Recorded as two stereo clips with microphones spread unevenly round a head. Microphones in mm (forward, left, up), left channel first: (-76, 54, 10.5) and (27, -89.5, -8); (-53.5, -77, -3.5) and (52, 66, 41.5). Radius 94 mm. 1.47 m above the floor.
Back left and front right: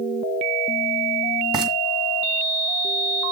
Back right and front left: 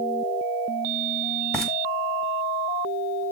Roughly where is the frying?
Ahead.